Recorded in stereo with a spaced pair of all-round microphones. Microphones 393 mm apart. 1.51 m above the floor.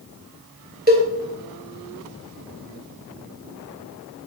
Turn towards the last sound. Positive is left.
turn(degrees=-25)  # may be behind; listen again after turning